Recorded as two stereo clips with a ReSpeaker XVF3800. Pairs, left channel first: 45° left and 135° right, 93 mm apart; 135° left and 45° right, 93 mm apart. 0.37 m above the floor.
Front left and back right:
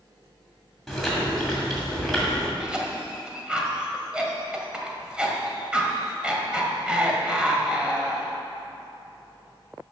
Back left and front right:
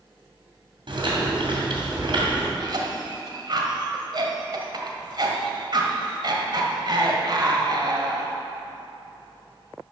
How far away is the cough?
About 1.6 m.